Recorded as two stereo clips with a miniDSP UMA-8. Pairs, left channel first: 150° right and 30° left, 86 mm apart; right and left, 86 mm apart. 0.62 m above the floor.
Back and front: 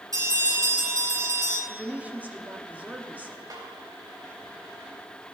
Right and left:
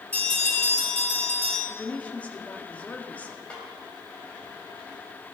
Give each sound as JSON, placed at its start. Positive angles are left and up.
{"t": 0.1, "sound": "a bell", "azimuth_deg": -20, "distance_m": 7.0}
{"t": 1.7, "sound": "a woman speaking", "azimuth_deg": -30, "distance_m": 1.4}
{"t": 3.5, "sound": "a snare drum", "azimuth_deg": -15, "distance_m": 3.0}